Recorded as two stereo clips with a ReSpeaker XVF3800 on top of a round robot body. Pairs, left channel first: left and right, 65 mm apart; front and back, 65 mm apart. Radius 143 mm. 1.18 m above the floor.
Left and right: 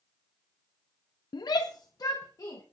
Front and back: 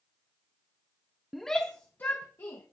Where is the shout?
95° left, 0.5 m; by 2.6 s 55° left, 1.5 m.